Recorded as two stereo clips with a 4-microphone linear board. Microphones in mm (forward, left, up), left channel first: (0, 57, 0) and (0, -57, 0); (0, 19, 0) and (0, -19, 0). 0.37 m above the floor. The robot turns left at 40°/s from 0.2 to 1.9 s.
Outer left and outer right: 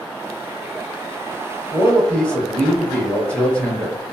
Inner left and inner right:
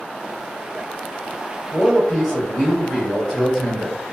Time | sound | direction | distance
1.7 | a man speaking | 15° left (ahead or behind) | 1.9 m